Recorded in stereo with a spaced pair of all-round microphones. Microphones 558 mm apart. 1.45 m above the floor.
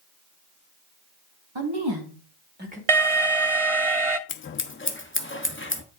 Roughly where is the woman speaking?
Right.